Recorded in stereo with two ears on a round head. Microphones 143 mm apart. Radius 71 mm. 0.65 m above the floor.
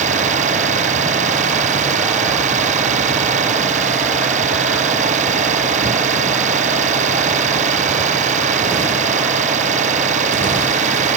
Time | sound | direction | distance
0.0 | an engine running | 50° right (ahead or behind) | ?